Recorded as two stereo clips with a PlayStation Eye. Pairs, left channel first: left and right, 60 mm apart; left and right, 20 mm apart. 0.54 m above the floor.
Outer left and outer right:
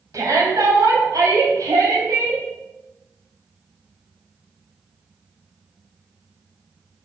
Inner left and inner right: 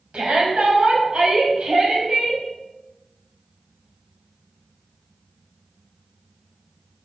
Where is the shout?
70° right (ahead or behind), 4 m; by 2.4 s 65° right (ahead or behind), 4 m.